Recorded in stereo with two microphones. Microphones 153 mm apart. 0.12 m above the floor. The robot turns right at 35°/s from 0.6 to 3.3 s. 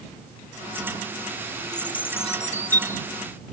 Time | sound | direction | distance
1.7 | a bird | 30° left | ?